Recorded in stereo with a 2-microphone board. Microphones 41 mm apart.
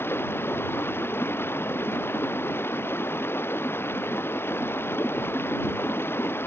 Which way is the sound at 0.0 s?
70° left (ahead or behind).